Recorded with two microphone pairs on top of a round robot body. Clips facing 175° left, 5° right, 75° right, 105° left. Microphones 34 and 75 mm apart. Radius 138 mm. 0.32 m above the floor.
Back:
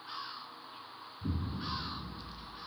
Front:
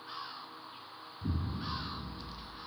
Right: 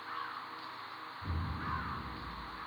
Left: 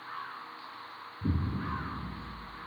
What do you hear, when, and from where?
1.2 s an explosion: 100° left, 0.8 m